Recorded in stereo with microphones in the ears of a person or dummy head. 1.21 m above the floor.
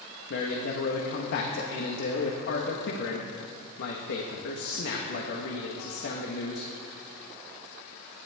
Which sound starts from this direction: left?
A man speaking, at 0.3 s.